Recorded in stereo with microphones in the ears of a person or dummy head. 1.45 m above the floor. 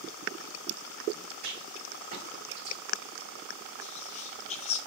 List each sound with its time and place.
1.4 s a rattle: 50° right (ahead or behind), 2 m
3.8 s whispering: 35° left (ahead or behind), 0.8 m